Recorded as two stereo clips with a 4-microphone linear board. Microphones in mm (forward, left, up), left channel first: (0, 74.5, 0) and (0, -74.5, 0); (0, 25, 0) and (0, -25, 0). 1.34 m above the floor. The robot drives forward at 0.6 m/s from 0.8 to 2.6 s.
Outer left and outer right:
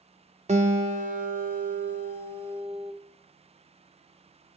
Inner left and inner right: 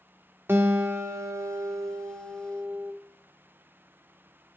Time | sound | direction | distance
0.5 | a guitar | 50° right (ahead or behind) | 0.8 m